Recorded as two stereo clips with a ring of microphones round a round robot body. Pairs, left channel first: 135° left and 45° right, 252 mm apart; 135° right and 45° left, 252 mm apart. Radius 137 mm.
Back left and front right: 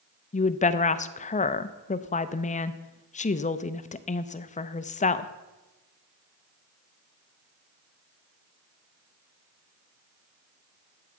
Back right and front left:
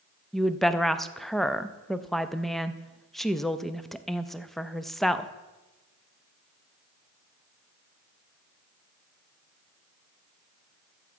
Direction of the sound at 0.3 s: 135° left.